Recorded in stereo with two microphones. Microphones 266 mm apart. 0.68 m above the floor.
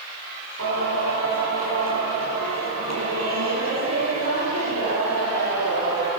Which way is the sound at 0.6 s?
85° right.